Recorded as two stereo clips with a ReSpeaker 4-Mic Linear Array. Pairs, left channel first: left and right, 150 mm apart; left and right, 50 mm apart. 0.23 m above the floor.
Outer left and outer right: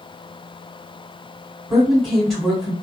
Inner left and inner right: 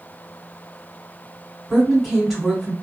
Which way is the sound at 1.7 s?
Centre (ahead or behind).